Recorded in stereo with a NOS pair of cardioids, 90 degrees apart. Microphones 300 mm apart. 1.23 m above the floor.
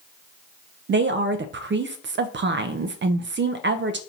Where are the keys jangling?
I don't hear keys jangling.